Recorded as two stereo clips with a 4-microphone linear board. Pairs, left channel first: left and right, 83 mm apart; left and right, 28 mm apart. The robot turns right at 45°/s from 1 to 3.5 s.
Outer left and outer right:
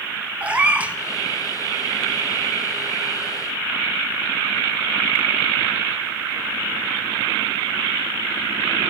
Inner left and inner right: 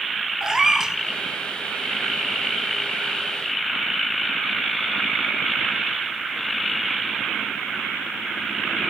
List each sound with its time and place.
0.4 s a cat meowing: 15° right (ahead or behind), 1.5 m